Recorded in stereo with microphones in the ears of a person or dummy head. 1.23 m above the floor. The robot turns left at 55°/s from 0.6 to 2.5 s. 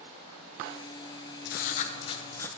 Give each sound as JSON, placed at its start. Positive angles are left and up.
{"t": 1.4, "sound": "writing", "azimuth_deg": 70, "distance_m": 0.5}